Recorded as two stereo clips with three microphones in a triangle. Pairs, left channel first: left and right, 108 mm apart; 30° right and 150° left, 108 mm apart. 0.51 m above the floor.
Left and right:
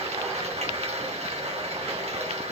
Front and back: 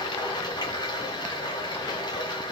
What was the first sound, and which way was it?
Running water, 80° right.